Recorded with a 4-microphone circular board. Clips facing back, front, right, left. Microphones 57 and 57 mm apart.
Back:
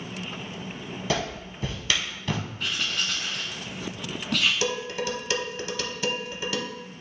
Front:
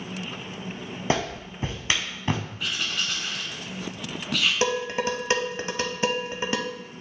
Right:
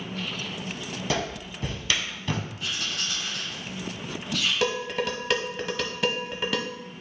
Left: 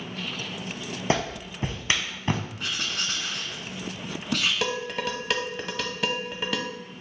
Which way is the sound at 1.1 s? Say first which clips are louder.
Front 3 dB, left 3 dB; 50° left.